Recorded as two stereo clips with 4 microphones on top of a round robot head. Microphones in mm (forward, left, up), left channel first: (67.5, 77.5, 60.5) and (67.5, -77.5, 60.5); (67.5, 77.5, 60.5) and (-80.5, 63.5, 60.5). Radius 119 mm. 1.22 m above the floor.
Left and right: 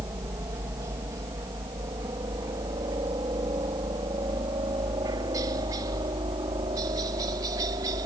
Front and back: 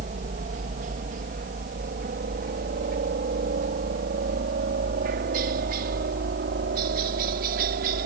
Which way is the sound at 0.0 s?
160° right.